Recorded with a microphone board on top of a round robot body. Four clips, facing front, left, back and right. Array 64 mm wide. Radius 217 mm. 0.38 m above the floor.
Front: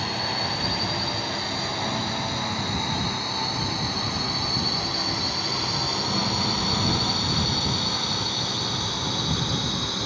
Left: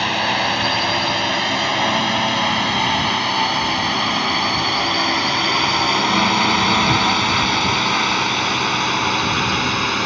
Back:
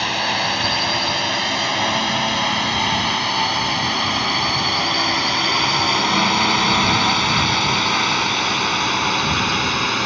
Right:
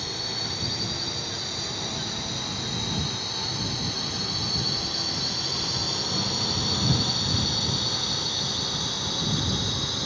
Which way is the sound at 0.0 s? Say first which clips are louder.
Left 16 dB, back 7 dB; 115° left.